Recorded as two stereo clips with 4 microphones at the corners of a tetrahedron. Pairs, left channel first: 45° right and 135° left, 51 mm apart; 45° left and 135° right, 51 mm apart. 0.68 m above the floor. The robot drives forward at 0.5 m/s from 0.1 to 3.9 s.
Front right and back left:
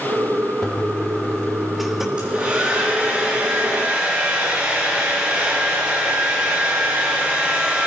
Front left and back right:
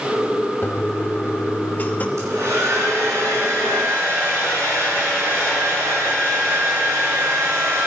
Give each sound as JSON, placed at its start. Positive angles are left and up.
{"t": 0.6, "sound": "a toilet flushing", "azimuth_deg": 25, "distance_m": 1.6}
{"t": 2.2, "sound": "a hair dryer", "azimuth_deg": -155, "distance_m": 4.5}